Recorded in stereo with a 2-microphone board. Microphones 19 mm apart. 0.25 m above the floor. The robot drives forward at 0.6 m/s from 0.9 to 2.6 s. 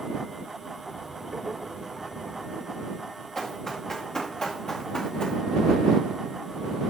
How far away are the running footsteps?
About 3 m.